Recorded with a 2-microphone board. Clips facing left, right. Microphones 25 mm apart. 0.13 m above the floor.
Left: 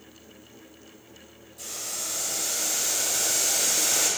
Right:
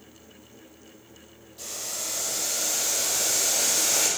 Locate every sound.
1.6 s boiling: 40° right (ahead or behind), 1.4 m